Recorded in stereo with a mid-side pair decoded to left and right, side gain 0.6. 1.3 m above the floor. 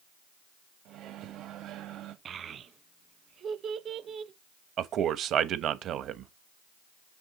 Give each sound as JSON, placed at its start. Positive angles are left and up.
{"t": 0.8, "sound": "a microwave", "azimuth_deg": -60, "distance_m": 1.6}
{"t": 2.2, "sound": "a child speaking", "azimuth_deg": -45, "distance_m": 1.2}
{"t": 4.8, "sound": "a man speaking", "azimuth_deg": -55, "distance_m": 1.2}